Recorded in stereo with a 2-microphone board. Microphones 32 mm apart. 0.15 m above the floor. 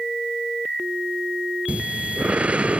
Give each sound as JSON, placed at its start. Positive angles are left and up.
{"t": 1.7, "sound": "breathing", "side_deg": -50}